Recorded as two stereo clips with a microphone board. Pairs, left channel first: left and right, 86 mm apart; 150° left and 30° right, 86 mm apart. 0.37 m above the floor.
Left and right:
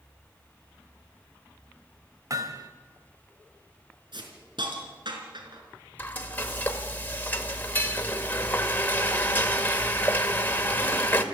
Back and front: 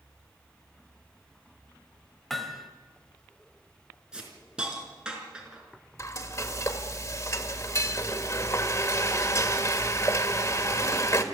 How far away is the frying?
About 1.8 m.